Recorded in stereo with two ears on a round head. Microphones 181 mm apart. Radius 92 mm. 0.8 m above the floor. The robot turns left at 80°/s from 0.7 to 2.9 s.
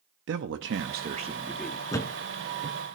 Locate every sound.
0.3 s a man speaking: 105° right, 0.7 m; by 1.8 s 165° left, 0.7 m
1.9 s a thud: 15° left (ahead or behind), 1.4 m; by 2.8 s 45° right (ahead or behind), 1.4 m